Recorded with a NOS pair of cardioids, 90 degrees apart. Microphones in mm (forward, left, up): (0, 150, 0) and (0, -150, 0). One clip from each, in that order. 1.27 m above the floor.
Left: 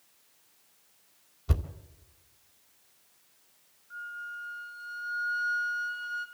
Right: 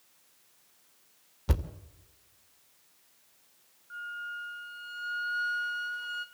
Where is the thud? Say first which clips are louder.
Right 2 dB; 45° right, 2.5 m.